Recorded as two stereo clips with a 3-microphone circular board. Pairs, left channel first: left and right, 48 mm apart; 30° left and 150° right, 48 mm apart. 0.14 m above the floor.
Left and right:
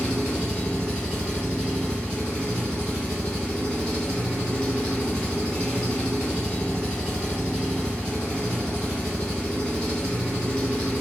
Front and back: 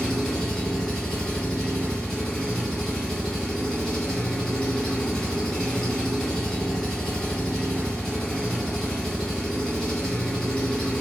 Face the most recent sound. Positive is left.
turn(degrees=110)